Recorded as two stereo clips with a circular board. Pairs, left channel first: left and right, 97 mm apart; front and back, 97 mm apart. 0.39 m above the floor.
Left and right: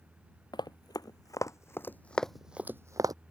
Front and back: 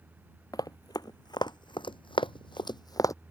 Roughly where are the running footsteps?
Ahead left.